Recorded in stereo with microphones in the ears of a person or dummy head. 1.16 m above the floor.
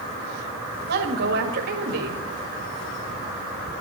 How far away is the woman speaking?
About 1.9 m.